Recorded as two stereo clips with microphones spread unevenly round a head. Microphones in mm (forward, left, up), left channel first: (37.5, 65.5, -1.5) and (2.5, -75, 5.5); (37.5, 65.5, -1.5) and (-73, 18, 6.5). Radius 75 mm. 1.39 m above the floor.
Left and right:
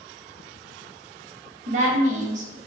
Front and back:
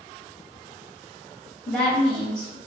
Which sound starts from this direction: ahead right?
A woman speaking, at 1.7 s.